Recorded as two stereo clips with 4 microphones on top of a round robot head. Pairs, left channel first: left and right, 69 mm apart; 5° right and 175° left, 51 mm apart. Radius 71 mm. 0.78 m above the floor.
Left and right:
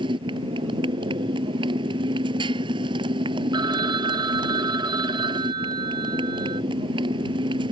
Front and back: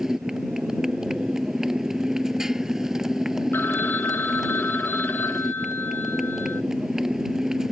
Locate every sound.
0.0 s a motorcycle: 100° right
3.5 s a phone ringing: 65° right